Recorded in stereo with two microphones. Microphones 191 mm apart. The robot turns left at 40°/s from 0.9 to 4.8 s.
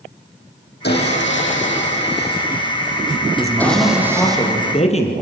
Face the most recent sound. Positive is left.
turn(degrees=145)